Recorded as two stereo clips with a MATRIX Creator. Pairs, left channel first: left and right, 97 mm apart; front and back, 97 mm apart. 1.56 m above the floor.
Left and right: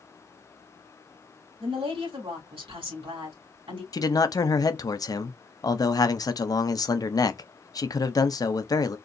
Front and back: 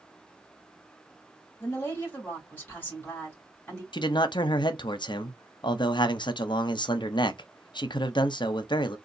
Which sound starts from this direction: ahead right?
A woman speaking, at 1.6 s.